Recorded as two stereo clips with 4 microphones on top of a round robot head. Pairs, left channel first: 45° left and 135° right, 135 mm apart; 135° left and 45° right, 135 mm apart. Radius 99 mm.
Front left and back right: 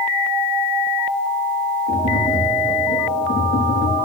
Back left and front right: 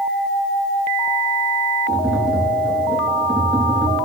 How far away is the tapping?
About 5.5 m.